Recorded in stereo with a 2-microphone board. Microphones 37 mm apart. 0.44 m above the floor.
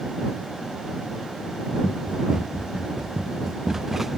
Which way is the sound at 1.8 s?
20° right (ahead or behind).